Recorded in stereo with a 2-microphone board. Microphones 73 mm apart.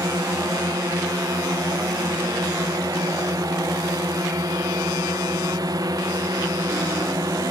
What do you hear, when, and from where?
0.0 s a drone: 50° right (ahead or behind)